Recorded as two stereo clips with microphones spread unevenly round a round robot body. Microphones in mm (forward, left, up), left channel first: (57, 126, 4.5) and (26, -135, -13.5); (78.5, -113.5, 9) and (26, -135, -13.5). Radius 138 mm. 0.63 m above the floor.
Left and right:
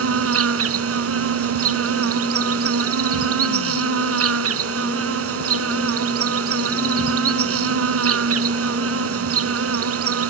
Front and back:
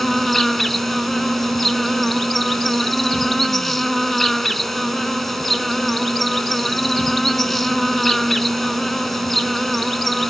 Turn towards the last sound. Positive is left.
turn(degrees=-60)